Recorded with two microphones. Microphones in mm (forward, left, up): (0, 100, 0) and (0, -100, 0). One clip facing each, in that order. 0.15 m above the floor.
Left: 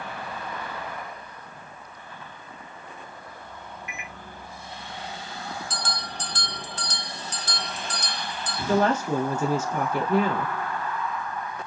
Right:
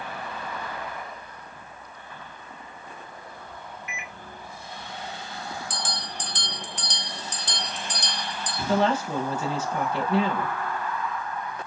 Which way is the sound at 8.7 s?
45° left (ahead or behind).